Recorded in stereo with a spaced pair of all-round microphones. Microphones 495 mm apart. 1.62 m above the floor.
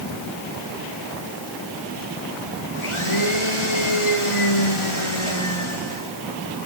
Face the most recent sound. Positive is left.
turn(degrees=75)  # may be behind; listen again after turning